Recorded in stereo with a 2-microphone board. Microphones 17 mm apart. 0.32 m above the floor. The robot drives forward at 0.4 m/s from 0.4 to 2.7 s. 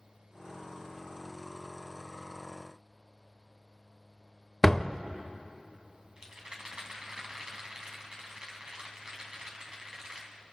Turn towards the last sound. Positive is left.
turn(degrees=-45)  # may be behind; listen again after turning